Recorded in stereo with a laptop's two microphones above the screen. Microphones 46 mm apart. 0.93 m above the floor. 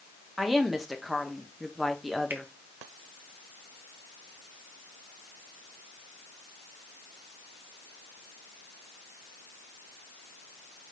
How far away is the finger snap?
About 0.7 m.